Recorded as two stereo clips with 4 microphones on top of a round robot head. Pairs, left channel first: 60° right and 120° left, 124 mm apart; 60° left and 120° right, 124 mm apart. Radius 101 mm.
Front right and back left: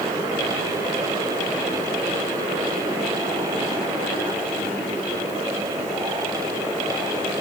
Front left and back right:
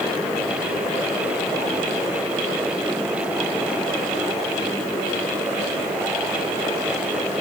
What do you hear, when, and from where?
Only background noise.